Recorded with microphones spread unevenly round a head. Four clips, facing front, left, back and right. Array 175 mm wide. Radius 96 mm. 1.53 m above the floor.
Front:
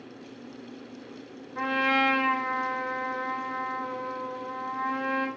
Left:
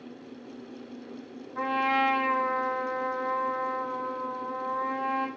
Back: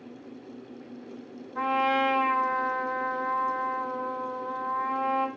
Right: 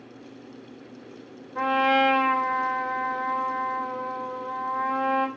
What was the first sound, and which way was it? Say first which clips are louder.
A trumpet: right 5 dB, back 1 dB; 95° right.